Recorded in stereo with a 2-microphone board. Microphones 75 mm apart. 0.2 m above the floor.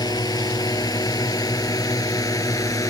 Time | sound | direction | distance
0.0 | a drone | 65° left (ahead or behind) | ?